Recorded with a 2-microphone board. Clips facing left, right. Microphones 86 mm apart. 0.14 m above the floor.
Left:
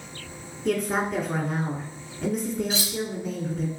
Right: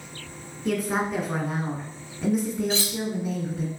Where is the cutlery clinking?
15° left (ahead or behind), 0.8 m.